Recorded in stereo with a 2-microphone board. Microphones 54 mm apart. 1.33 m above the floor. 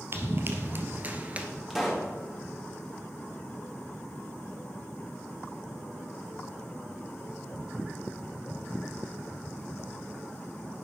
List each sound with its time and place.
0.1 s running footsteps: 50° right (ahead or behind), 1.8 m; by 1.5 s 25° right (ahead or behind), 1.4 m
1.7 s a pop: 5° right (ahead or behind), 2 m